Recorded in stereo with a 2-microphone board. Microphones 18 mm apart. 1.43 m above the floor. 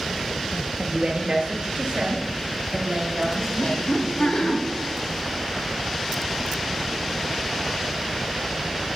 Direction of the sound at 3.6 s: 75° left (ahead or behind).